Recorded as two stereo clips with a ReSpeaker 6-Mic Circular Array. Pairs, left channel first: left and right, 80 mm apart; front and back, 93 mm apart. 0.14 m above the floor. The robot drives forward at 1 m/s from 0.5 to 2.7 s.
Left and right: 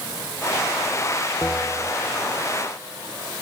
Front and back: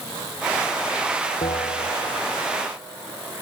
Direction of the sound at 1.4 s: 15° left.